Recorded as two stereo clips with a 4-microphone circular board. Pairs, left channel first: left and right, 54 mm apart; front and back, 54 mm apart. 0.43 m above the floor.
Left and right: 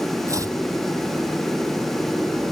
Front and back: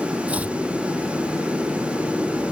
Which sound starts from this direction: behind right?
Chopping, at 0.3 s.